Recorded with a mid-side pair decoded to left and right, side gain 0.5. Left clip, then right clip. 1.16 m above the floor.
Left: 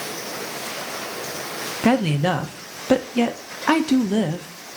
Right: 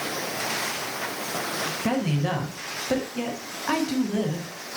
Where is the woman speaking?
55° left, 0.9 m.